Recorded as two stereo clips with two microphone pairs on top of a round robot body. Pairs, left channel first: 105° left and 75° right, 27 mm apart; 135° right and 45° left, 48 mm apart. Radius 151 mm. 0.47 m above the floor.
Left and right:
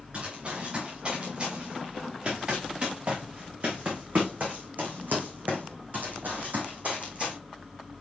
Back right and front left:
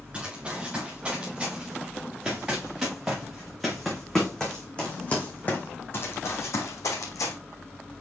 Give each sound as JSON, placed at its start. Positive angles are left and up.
{"t": 0.1, "sound": "running footsteps", "azimuth_deg": -25, "distance_m": 4.0}